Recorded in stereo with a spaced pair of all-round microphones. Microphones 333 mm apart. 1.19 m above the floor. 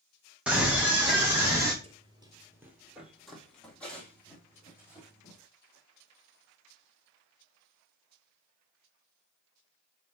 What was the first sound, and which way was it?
A scream, 5° right (ahead or behind).